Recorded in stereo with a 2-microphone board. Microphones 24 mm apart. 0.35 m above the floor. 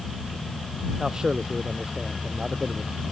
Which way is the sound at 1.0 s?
35° right (ahead or behind).